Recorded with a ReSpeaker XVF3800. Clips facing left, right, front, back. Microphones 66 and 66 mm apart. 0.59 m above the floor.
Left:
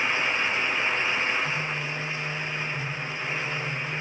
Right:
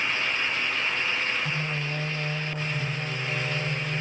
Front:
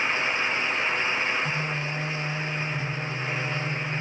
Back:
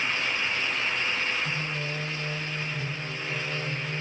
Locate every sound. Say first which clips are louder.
1.4 s singing: left 1 dB, front 3 dB; 45° right, 5 m